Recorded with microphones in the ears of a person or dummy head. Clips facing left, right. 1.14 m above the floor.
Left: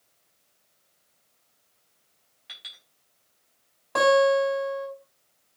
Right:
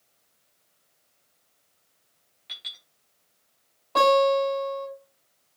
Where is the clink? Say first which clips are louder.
Right 1 dB; 10° left (ahead or behind), 4 m.